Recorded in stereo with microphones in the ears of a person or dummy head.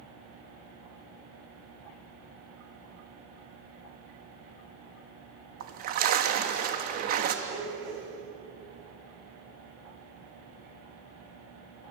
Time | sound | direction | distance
5.6 | a splash | 60° right (ahead or behind) | 1.2 m
7.5 | a blender | 45° right (ahead or behind) | 7.5 m